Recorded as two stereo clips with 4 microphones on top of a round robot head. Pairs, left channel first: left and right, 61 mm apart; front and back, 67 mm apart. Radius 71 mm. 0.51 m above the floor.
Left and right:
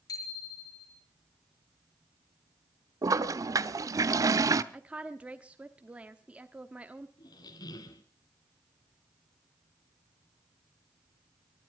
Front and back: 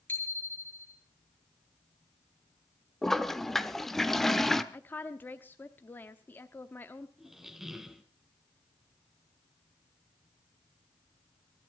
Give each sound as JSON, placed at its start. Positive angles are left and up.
{"t": 0.1, "sound": "a bicycle bell", "azimuth_deg": 60, "distance_m": 6.5}
{"t": 3.0, "sound": "a toilet flushing", "azimuth_deg": -85, "distance_m": 1.0}
{"t": 4.7, "sound": "a woman speaking", "azimuth_deg": -35, "distance_m": 1.0}
{"t": 7.2, "sound": "a squeak", "azimuth_deg": 95, "distance_m": 1.7}